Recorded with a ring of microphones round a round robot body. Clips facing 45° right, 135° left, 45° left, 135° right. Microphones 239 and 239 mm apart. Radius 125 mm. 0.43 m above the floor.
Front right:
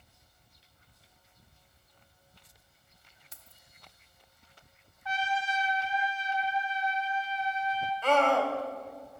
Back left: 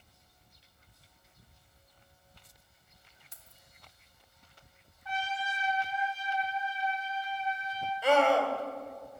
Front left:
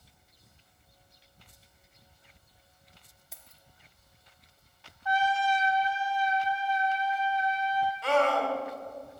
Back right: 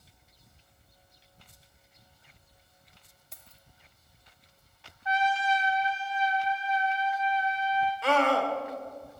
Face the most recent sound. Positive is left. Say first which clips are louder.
# back left 1 dB, even
turn(degrees=-145)